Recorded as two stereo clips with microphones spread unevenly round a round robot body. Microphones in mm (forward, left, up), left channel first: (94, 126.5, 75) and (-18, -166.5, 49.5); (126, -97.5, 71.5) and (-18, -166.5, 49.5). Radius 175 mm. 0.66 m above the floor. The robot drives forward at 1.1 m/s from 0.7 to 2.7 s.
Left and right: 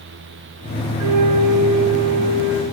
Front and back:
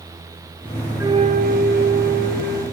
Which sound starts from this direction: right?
A flute, at 1.0 s.